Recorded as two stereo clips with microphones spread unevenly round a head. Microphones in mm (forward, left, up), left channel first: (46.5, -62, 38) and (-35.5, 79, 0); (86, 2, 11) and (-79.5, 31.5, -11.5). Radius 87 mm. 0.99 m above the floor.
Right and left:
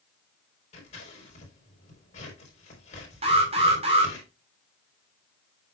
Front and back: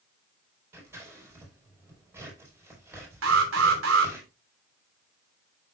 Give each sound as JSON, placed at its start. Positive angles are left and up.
{"t": 0.7, "sound": "scissors", "azimuth_deg": -115, "distance_m": 4.0}
{"t": 3.2, "sound": "an alarm", "azimuth_deg": 175, "distance_m": 2.5}